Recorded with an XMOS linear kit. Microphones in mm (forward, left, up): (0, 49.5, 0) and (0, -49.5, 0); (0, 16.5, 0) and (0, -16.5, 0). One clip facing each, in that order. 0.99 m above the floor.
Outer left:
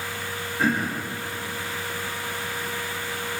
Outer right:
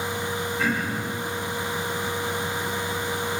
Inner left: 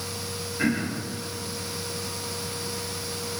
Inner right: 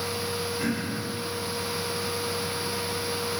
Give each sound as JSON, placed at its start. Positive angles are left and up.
{"t": 0.6, "sound": "throat clearing", "side_deg": 45, "distance_m": 3.0}